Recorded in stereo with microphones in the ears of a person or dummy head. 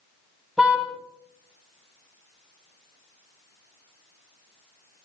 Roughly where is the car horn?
Centre.